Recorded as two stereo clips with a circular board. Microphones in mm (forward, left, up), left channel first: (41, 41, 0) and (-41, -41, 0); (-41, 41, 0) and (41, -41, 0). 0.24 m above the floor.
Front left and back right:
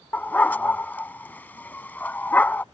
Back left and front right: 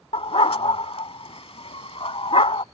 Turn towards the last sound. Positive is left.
turn(degrees=115)